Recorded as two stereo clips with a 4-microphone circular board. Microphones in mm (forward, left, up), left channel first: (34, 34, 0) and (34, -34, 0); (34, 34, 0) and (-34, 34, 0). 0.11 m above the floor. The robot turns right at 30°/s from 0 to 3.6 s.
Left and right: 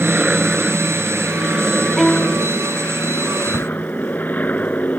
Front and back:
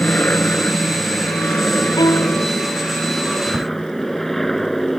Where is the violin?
Straight ahead; by 2.5 s 15° left.